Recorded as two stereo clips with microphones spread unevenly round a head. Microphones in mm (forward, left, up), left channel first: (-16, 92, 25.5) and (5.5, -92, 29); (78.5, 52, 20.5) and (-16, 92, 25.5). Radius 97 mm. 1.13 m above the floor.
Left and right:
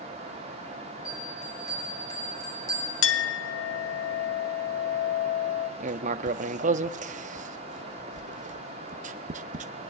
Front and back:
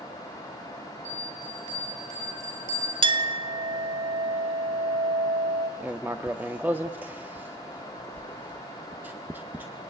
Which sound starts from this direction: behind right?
Writing, at 5.8 s.